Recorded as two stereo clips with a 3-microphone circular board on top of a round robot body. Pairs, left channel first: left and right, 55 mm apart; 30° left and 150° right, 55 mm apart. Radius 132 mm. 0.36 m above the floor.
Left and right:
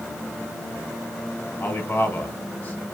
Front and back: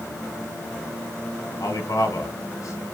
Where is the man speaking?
40° left, 2.5 m.